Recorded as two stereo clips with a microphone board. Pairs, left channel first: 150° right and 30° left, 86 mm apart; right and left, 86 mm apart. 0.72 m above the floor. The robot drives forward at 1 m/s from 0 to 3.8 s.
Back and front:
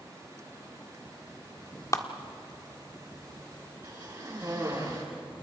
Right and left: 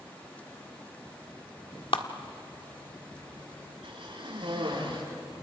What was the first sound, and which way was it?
A clap, 100° right.